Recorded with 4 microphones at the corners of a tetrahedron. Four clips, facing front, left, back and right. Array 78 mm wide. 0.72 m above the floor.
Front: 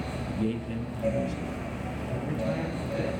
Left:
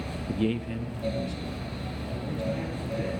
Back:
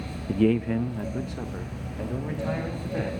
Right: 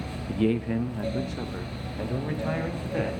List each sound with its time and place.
0.3 s a man speaking: 160° left, 0.6 m; by 3.1 s 115° right, 3.5 m